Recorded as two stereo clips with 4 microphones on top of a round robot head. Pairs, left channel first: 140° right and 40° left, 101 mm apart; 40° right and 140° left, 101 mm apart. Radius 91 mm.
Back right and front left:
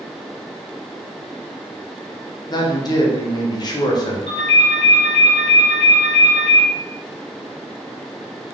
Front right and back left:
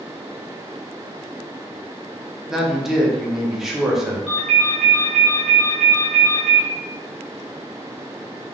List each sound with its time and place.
2.5 s a man speaking: 130° right, 0.7 m
4.3 s a ringtone: 125° right, 0.8 m